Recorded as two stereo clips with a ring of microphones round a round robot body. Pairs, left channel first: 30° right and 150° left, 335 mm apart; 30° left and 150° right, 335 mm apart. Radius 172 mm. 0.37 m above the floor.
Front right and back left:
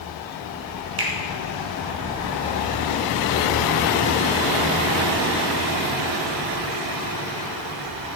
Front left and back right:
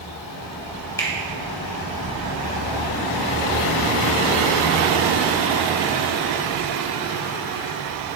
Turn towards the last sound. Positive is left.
turn(degrees=110)